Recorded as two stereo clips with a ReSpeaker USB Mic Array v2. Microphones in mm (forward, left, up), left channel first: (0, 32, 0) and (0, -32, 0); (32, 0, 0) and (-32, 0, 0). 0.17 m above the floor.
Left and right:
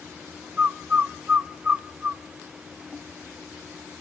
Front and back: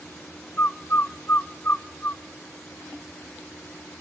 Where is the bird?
30° right, 0.5 m.